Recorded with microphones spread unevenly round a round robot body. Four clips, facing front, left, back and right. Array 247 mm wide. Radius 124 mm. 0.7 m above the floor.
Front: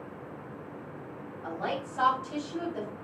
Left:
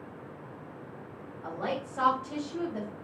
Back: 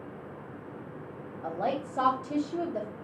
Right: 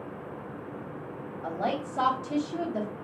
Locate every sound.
1.4 s a woman speaking: 155° right, 3 m